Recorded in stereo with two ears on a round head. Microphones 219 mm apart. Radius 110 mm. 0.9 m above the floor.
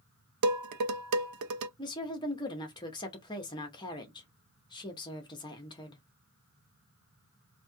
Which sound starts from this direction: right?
Dishes clattering, at 0.4 s.